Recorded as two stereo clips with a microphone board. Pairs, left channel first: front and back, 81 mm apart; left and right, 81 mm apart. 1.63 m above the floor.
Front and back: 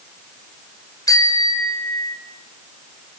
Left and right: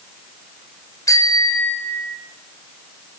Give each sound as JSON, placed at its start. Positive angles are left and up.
{"t": 1.1, "sound": "a bicycle bell", "azimuth_deg": 45, "distance_m": 5.0}